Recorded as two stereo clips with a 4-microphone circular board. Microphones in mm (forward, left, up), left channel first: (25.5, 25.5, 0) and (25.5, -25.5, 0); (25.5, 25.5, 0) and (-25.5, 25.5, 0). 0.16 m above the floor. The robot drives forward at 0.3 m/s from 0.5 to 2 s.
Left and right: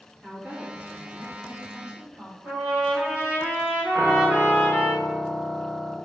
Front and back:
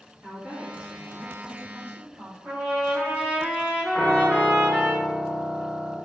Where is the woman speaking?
125° right, 2.0 m; by 2.3 s 140° right, 2 m.